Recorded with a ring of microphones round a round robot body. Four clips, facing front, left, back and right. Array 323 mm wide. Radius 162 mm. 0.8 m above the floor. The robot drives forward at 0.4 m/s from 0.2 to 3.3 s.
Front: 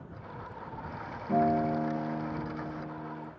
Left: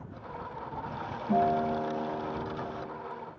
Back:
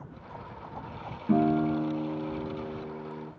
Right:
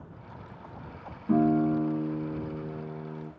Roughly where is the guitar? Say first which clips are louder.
Right 3 dB, back 2 dB; behind.